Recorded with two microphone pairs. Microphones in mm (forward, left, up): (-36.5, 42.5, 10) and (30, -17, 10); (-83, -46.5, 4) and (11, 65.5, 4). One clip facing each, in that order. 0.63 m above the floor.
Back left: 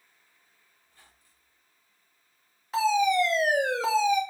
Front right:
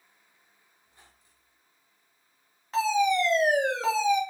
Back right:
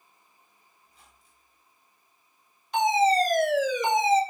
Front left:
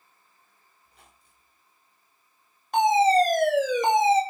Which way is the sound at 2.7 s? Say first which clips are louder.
Back left 1 dB, front left 3 dB; 55° left.